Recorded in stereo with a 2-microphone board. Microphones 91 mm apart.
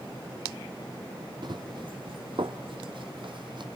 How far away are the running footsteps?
About 1.4 m.